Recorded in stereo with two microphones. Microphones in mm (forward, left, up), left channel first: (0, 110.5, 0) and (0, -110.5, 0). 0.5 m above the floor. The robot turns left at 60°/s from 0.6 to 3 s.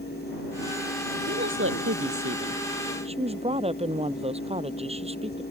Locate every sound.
1.3 s a woman speaking: 50° right; by 5.4 s 150° right